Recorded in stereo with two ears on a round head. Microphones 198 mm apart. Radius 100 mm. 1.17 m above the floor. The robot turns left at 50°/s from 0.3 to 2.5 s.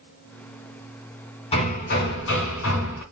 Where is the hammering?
150° left, 3 m; by 3.0 s 100° left, 3 m.